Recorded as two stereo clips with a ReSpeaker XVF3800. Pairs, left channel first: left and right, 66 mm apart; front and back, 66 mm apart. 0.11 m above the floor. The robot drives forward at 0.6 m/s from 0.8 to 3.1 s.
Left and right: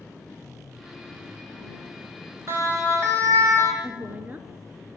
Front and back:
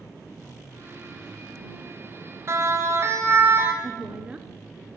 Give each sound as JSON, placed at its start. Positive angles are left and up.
{"t": 2.5, "sound": "a siren", "azimuth_deg": -135, "distance_m": 3.0}
{"t": 3.8, "sound": "a woman speaking", "azimuth_deg": -120, "distance_m": 1.5}